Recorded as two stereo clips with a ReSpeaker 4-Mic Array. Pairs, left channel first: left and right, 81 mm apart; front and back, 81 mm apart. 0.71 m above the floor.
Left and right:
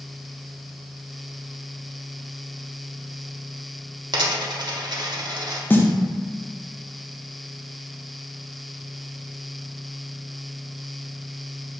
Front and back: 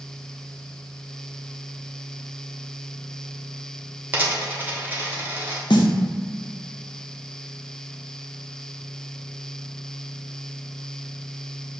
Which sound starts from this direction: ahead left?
A snare drum, at 5.7 s.